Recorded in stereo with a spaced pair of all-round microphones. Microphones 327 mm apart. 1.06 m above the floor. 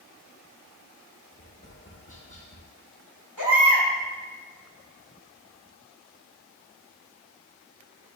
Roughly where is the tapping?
Left.